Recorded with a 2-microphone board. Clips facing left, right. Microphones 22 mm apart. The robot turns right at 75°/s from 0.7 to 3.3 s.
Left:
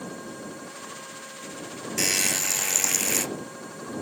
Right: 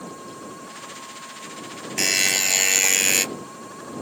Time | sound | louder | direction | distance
2.0 | a buzzer | right 5 dB | 160° right | ?